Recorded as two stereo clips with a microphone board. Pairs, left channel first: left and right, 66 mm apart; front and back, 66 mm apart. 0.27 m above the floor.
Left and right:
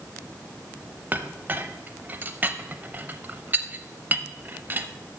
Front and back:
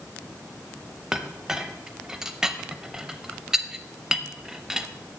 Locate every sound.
1.1 s a clink: 110° right, 0.5 m